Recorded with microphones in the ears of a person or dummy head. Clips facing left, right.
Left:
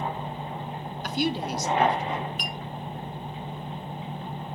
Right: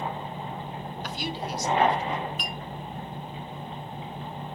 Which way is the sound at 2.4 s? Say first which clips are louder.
Even; 45° left (ahead or behind).